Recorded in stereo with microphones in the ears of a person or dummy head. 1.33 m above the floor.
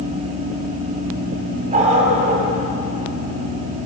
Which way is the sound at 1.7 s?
35° right (ahead or behind).